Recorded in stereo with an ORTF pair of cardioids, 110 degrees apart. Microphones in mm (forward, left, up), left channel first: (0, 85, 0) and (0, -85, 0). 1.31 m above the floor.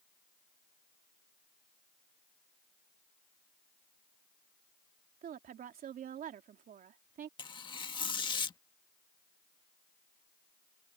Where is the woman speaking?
60° right.